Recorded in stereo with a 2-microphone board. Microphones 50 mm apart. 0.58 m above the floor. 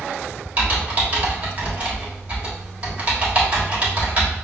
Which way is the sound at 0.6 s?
25° right (ahead or behind).